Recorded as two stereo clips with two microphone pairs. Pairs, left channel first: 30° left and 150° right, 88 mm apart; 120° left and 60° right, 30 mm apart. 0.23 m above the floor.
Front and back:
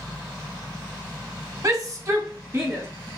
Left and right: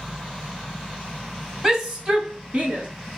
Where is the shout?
135° right, 1.7 m; by 2.9 s 100° right, 2 m.